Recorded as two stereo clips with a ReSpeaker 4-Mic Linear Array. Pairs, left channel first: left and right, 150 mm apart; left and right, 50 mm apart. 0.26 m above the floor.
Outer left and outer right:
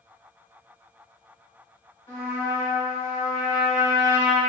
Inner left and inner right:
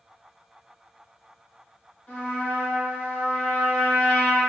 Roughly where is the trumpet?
Left.